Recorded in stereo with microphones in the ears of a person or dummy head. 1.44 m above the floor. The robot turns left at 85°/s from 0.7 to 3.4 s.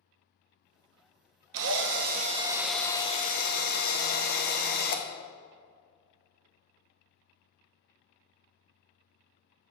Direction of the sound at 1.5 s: 80° right.